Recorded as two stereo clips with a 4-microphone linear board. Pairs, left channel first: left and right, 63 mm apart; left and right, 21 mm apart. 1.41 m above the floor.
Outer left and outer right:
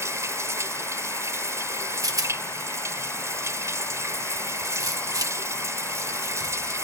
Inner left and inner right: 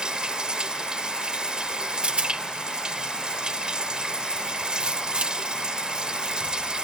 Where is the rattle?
70° right (ahead or behind).